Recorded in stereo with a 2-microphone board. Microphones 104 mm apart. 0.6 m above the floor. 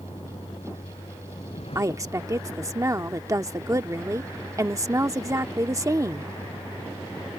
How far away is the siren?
I don't hear a siren.